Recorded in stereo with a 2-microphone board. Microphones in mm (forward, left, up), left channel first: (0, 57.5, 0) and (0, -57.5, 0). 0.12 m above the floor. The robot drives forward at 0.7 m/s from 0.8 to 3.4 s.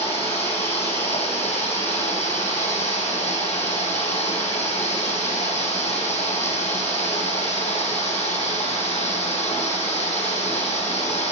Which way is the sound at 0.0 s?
60° left (ahead or behind).